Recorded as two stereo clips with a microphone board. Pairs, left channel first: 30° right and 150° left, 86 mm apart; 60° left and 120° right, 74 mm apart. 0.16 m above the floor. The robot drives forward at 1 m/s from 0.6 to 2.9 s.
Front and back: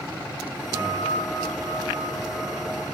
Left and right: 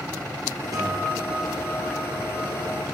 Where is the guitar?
165° right, 8.5 m; by 2.8 s 170° right, 10.5 m.